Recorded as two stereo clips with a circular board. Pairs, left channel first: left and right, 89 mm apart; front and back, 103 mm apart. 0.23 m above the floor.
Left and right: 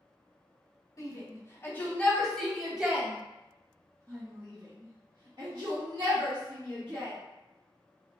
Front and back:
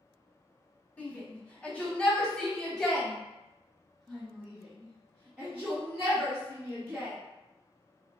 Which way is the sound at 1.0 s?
70° left.